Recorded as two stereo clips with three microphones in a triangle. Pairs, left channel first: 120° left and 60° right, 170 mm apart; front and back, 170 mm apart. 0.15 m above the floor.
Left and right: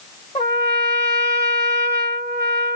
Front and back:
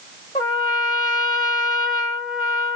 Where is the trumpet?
65° left, 1.6 m.